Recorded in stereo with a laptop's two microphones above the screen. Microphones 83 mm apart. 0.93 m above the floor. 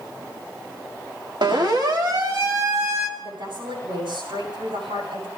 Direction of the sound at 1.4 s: 70° right (ahead or behind).